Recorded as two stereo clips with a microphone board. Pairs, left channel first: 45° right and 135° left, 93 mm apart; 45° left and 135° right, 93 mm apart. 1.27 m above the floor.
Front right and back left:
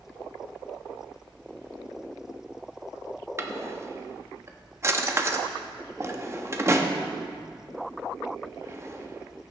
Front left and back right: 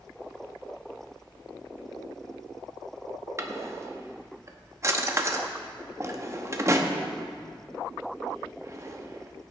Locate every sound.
3.4 s a drawer: straight behind, 0.8 m